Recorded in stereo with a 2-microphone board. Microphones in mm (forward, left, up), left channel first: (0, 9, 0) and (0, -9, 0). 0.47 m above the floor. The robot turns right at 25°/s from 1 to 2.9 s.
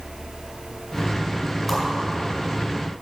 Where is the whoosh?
5° right (ahead or behind), 4 m; by 1.8 s 10° right (ahead or behind), 4 m.